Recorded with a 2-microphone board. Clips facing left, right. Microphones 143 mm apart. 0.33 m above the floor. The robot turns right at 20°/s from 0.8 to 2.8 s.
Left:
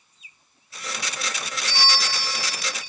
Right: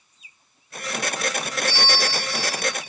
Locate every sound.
1.7 s a bell: 60° left (ahead or behind), 1.8 m; by 2.8 s 40° left (ahead or behind), 1.8 m